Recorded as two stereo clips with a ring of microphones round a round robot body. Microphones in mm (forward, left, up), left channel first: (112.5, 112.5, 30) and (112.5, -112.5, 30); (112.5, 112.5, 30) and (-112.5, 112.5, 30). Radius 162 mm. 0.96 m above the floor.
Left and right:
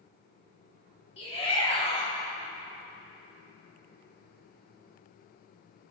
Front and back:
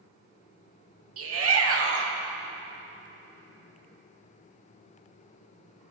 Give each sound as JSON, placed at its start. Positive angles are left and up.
{"t": 1.2, "sound": "a shout", "azimuth_deg": 160, "distance_m": 1.7}